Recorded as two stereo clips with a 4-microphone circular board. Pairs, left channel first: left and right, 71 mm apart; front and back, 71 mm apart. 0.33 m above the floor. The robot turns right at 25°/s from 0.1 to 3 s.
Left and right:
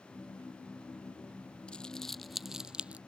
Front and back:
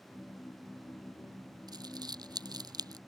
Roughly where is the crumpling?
Behind.